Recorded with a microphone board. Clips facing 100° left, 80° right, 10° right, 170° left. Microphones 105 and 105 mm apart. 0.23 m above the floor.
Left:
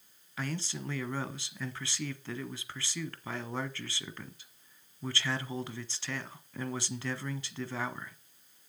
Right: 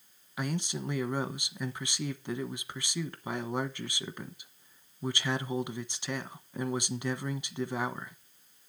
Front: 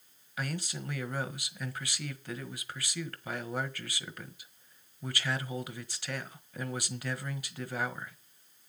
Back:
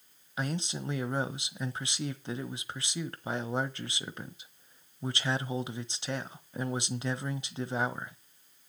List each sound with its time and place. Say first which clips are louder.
0.4 s a man speaking: right 3 dB, back 3 dB; 140° right, 1.2 m